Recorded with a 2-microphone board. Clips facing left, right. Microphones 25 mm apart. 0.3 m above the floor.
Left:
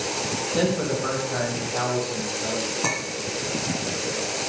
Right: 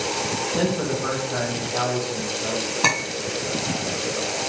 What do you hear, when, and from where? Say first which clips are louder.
0.6 s a man speaking: left 2 dB; 15° left (ahead or behind), 1.5 m; by 2.7 s 20° right (ahead or behind), 2 m
2.8 s a clink: right 5 dB; 60° right (ahead or behind), 1.1 m